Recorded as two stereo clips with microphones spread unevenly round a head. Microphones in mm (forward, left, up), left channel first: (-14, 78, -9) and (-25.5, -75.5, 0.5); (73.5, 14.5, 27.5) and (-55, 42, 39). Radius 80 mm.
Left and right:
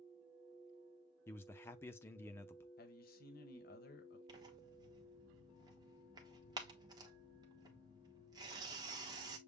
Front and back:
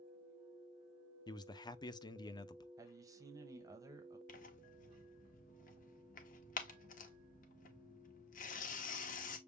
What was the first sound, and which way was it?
A man speaking, 20° left.